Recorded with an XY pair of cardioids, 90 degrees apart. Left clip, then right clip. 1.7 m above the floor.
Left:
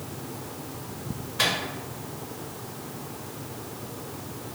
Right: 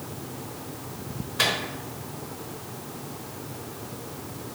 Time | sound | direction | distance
1.4 | a microwave | 10° right | 0.9 m